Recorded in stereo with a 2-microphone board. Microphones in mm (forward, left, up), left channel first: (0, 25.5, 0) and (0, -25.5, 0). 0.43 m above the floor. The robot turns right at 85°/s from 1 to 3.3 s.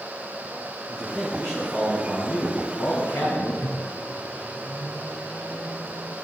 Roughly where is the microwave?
Left.